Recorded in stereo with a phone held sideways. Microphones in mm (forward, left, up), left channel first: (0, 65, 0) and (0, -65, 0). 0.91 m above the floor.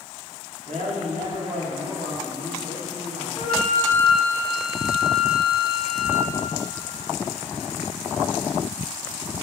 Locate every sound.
0.7 s a man speaking: 70° right (ahead or behind), 2.5 m; by 3.3 s 60° right (ahead or behind), 3 m
3.4 s a flute: 30° left (ahead or behind), 2 m